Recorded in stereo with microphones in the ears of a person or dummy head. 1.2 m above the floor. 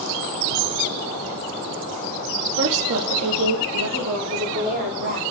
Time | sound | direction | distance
2.6 | a woman speaking | 60° right (ahead or behind) | 1.4 m